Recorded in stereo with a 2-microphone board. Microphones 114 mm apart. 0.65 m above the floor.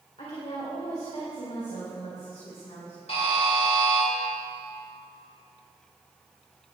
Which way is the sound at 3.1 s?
60° left (ahead or behind).